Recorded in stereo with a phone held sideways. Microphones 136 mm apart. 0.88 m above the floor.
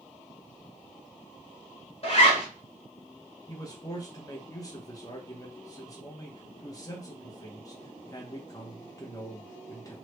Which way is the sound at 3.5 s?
25° left (ahead or behind).